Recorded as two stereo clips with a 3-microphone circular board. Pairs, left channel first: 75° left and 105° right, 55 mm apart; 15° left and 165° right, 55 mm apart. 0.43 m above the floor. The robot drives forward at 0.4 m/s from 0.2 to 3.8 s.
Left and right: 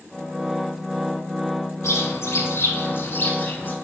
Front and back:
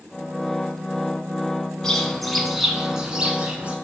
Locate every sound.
1.8 s a bird: 95° left, 1.0 m; by 3.7 s 130° left, 1.3 m